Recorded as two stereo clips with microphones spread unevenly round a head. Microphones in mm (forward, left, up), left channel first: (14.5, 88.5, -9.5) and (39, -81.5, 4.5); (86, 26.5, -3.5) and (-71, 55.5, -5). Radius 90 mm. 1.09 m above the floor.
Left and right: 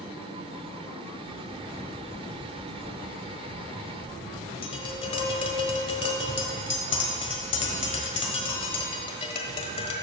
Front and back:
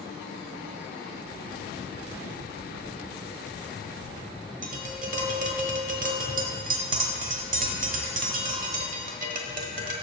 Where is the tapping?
155° left, 1.2 m.